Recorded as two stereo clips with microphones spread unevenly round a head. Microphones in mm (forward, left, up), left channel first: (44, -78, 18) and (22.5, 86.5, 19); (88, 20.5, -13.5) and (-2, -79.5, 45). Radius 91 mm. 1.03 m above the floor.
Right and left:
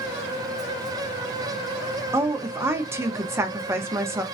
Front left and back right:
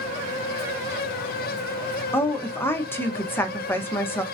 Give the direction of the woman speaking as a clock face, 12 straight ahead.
11 o'clock.